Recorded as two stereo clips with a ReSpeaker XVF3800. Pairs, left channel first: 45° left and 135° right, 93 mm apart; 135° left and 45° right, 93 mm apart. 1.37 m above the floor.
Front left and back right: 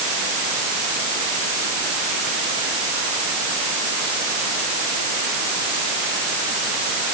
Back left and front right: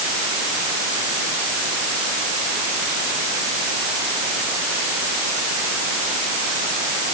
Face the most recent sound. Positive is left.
No sound to turn to.